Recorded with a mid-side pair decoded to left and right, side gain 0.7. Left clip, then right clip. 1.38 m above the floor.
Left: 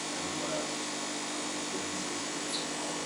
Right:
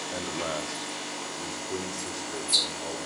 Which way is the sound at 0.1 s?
40° right.